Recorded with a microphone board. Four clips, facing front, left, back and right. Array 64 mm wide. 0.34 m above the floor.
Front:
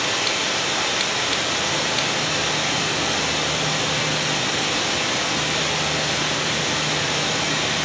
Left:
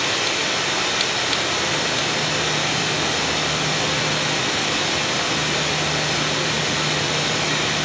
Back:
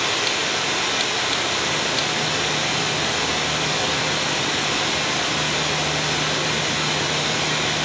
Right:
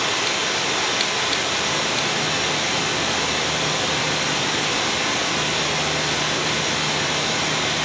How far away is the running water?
About 1.4 m.